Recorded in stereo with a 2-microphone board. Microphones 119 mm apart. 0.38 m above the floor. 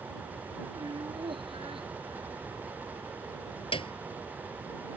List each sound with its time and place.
0.8 s laughter: 40° right (ahead or behind); by 3.1 s 60° right (ahead or behind)
3.7 s a piano: 50° left (ahead or behind)